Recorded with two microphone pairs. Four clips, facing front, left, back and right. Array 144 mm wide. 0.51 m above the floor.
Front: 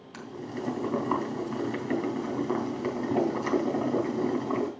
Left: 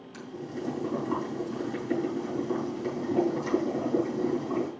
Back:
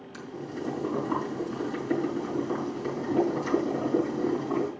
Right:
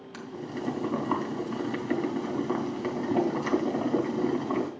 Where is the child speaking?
I don't hear a child speaking.